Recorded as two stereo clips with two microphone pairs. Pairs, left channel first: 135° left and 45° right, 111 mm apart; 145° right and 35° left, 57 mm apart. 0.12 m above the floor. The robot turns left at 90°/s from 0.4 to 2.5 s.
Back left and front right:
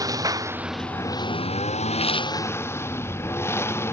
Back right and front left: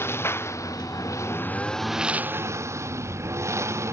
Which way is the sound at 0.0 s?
105° right.